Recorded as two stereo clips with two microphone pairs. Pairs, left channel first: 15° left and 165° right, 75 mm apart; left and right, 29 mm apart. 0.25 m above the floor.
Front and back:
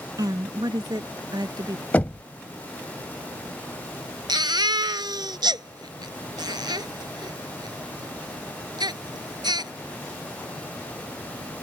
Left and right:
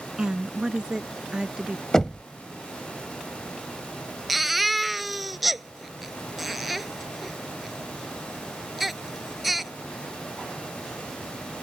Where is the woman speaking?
150° right.